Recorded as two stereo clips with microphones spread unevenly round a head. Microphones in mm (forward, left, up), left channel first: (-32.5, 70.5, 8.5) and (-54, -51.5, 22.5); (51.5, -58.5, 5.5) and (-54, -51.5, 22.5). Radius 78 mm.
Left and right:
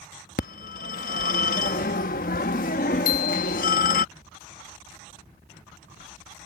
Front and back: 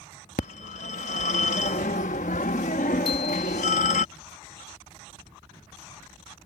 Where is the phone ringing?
40° left.